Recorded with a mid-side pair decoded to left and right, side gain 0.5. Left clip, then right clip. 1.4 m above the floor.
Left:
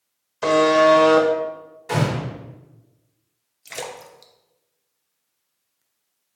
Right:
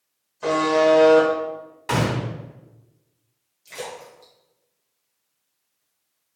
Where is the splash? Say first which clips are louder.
Left 2 dB; 55° left, 0.6 m.